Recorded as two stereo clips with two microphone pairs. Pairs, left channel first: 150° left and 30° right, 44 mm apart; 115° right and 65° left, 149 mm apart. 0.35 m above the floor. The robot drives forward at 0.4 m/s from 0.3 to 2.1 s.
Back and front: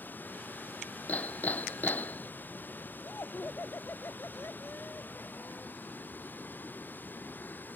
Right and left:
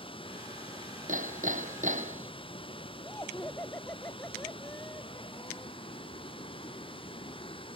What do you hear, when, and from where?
0.0 s running water: 170° right
1.1 s hammering: 95° left; by 2.3 s 100° left
3.0 s laughter: 170° left